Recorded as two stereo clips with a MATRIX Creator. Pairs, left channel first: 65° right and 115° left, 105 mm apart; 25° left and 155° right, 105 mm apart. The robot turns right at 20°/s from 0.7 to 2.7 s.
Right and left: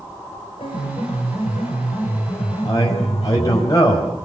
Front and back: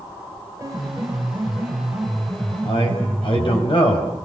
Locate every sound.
0.6 s a piano: 95° right, 5 m; by 3.6 s 55° right, 5 m
2.6 s a man speaking: 15° right, 5.5 m